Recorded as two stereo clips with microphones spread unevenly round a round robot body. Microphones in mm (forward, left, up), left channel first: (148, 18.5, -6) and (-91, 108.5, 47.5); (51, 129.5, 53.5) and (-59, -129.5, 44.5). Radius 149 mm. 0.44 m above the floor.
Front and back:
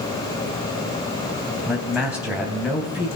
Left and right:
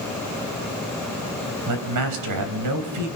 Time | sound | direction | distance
1.7 | a man speaking | 110° right | 3.5 m